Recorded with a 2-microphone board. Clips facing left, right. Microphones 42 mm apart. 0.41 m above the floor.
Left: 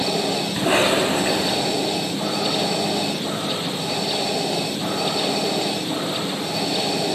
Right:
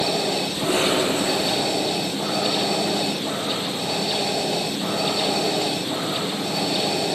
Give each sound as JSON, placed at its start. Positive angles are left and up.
{"t": 0.6, "sound": "a cough", "side_deg": 55, "distance_m": 2.5}